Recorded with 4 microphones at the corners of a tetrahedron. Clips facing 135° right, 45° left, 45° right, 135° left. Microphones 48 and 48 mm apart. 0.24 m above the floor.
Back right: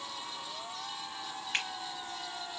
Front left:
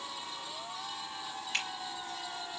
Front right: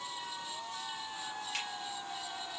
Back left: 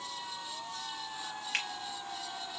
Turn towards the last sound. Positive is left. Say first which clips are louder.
# back right 1 dB, back left 6 dB
turn(degrees=165)